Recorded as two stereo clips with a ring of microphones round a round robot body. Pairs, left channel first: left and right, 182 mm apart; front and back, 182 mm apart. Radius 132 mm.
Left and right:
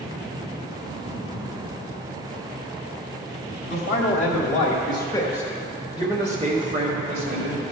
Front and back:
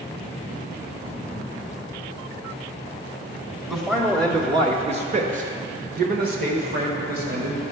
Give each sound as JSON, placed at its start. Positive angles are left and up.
{"t": 3.7, "sound": "a man speaking", "azimuth_deg": 100, "distance_m": 1.2}